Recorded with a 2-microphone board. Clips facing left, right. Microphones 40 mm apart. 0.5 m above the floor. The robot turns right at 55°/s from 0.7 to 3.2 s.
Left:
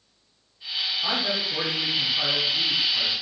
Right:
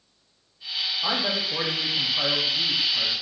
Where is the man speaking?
30° right (ahead or behind), 1.0 m; by 3.1 s 5° left (ahead or behind), 1.0 m.